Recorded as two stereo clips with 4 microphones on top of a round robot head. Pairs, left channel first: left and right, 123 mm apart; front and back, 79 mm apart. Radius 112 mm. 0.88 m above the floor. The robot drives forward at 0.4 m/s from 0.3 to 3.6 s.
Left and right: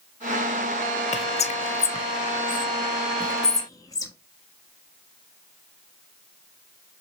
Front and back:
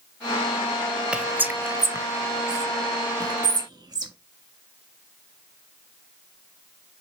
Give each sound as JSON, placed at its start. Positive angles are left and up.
{"t": 1.1, "sound": "whispering", "azimuth_deg": 100, "distance_m": 0.7}